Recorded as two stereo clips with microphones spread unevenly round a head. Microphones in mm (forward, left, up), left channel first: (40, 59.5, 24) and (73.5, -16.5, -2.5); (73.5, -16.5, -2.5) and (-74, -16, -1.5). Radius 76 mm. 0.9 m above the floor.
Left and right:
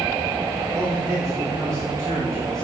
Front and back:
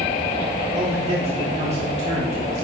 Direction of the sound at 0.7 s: 135° right.